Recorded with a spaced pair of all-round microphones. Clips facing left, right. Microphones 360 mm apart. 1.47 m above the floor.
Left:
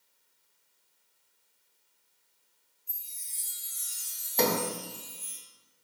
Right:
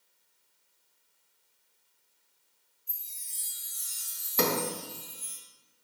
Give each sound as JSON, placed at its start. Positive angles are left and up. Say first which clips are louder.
{"t": 2.9, "sound": "a chime", "louder": "even", "side_deg": -20, "distance_m": 1.7}
{"t": 4.4, "sound": "a sliding door", "louder": "left 1 dB", "side_deg": -15, "distance_m": 0.9}